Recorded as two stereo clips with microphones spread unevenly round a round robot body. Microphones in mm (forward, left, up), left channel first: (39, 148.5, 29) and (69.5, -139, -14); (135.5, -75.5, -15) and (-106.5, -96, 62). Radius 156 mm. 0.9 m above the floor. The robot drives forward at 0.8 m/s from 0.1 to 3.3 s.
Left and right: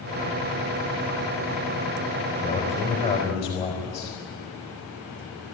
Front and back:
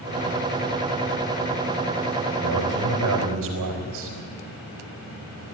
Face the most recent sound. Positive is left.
turn(degrees=170)